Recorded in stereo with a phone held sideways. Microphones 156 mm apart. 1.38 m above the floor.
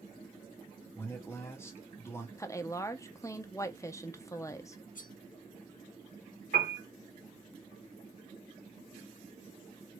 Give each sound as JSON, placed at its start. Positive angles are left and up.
{"t": 0.9, "sound": "a man speaking", "side_deg": 15, "distance_m": 1.1}
{"t": 2.4, "sound": "a woman speaking", "side_deg": 20, "distance_m": 0.5}
{"t": 5.0, "sound": "cutlery clinking", "side_deg": 60, "distance_m": 0.8}
{"t": 6.5, "sound": "a piano", "side_deg": -75, "distance_m": 1.3}